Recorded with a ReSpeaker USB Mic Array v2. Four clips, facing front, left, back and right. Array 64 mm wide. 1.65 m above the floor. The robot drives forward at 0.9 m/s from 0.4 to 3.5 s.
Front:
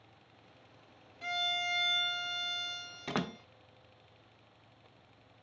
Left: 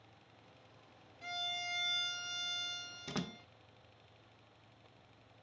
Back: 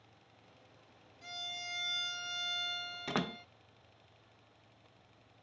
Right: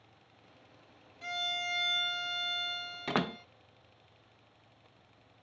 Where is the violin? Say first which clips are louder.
Right 6 dB, front 11 dB; 25° right; by 3.5 s 145° right.